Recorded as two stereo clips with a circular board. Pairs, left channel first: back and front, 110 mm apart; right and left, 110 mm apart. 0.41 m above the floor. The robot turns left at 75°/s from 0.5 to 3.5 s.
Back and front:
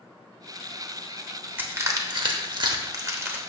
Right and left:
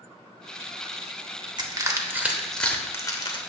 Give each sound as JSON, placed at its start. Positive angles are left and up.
{"t": 1.6, "sound": "crushing", "azimuth_deg": 65, "distance_m": 0.8}